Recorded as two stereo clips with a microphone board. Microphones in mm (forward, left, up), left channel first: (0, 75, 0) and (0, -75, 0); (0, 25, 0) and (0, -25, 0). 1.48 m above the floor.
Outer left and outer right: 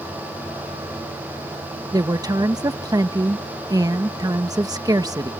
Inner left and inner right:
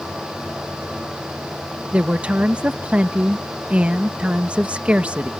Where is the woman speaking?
25° right (ahead or behind).